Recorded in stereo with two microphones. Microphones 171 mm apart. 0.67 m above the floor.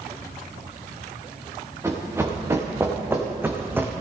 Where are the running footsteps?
15° right (ahead or behind), 3 m; by 3.9 s 10° right (ahead or behind), 1.5 m.